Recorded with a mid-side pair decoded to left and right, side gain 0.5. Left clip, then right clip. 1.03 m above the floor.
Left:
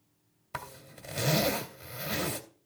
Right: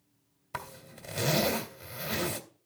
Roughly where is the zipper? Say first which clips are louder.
Right 1 dB; ahead.